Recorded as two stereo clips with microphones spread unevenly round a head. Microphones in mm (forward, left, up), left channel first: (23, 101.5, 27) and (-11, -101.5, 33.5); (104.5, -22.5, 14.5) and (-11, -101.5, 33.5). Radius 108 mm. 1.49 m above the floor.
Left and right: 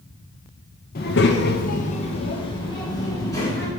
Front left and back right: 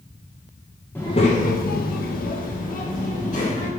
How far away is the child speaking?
About 0.7 m.